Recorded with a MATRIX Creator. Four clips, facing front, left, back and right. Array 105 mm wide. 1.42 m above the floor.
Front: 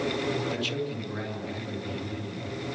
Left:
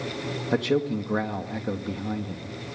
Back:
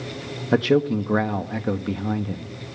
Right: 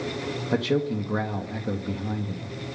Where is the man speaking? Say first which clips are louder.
Left 1 dB, back 12 dB; 175° left, 1.9 m.